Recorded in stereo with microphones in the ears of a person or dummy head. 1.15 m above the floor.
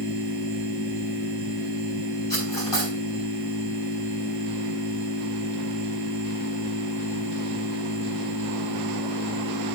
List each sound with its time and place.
0.0 s a machine running: 55° left (ahead or behind), 5.5 m
2.3 s cutlery clinking: 15° left (ahead or behind), 5 m